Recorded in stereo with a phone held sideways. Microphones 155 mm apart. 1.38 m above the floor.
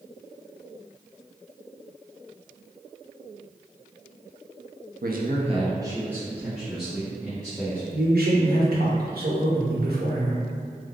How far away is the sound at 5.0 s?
About 0.6 m.